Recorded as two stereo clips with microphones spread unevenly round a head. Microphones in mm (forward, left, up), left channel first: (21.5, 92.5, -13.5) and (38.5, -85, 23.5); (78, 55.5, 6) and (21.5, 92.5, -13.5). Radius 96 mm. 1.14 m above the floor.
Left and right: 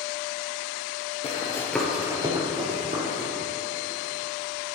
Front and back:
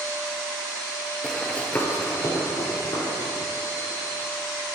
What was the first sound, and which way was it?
Running footsteps, 35° left.